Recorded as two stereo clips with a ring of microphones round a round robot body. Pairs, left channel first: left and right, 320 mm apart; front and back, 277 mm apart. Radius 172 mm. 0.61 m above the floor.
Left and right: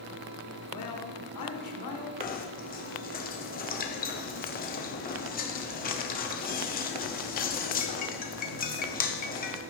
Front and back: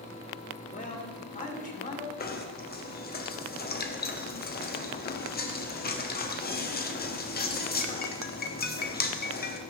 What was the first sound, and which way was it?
A man speaking, 60° left.